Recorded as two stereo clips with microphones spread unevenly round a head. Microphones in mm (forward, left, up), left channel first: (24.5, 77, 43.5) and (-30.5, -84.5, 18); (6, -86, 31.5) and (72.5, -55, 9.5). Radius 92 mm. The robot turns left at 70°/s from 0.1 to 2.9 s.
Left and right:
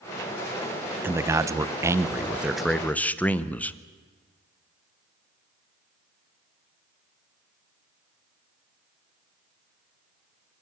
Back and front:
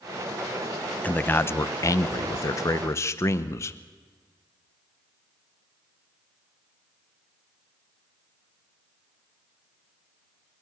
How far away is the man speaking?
About 0.7 m.